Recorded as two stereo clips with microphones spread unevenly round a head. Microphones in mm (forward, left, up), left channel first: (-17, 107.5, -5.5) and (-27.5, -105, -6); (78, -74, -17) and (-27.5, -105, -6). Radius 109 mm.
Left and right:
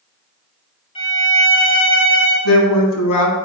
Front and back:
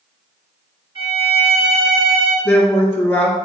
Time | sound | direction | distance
0.9 | a violin | 150° left | 2.5 m
2.5 | a woman speaking | 100° left | 1.6 m